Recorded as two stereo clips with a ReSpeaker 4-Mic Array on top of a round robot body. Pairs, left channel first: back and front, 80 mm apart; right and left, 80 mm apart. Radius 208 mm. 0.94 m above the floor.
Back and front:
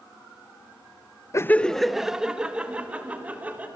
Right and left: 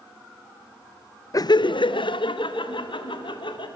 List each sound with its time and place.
1.3 s laughter: 130° right, 0.6 m; by 3.7 s 70° right, 3 m